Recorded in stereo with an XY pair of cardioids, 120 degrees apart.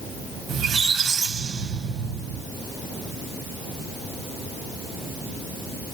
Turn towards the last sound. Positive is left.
turn(degrees=-60)